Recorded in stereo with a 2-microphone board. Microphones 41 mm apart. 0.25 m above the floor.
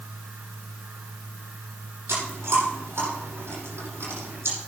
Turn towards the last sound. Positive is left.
turn(degrees=-80)